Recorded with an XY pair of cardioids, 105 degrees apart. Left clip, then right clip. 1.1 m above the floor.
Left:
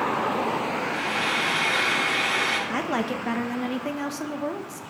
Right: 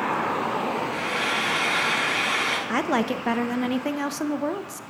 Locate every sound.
0.9 s frying: 35° right, 7 m
2.7 s a woman speaking: 30° right, 0.7 m